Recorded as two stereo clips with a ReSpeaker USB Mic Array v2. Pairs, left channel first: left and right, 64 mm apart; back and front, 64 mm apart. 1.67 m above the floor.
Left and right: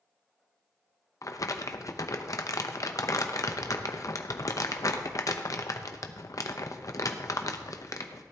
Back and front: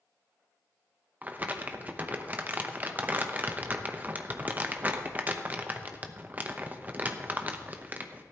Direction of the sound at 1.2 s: 60° left.